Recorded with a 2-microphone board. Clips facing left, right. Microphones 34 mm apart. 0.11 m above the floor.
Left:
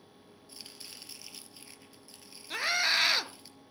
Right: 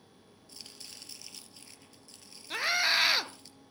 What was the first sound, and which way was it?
Chopping, 10° left (ahead or behind).